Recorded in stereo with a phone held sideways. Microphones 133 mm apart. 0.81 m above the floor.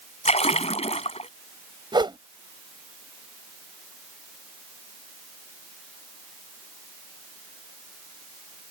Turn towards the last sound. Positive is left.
turn(degrees=-35)  # may be behind; listen again after turning